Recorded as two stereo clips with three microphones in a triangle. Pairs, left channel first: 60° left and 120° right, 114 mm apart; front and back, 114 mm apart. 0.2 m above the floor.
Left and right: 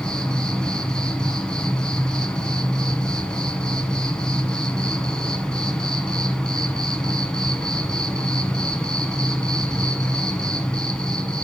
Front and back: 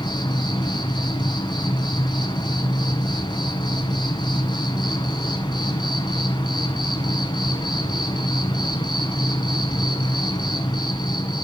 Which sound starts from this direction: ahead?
An insect, at 0.0 s.